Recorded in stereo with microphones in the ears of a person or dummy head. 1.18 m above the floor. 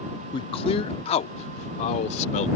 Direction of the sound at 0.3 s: 30° left (ahead or behind).